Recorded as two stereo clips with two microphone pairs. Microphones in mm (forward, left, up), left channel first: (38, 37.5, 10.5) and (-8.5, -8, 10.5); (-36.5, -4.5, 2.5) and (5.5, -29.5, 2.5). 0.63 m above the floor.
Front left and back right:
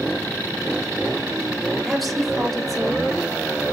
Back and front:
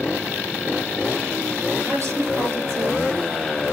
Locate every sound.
1.8 s a woman speaking: 45° right, 2.5 m